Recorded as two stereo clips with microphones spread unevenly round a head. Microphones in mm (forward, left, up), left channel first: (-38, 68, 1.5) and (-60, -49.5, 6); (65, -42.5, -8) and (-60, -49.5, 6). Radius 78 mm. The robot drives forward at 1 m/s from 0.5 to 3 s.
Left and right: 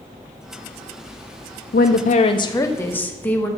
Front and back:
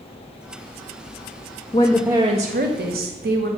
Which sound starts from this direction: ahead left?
A woman speaking, at 1.7 s.